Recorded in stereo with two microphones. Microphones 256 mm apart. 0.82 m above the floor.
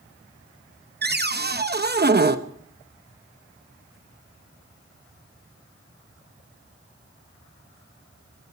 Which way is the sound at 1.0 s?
40° right (ahead or behind).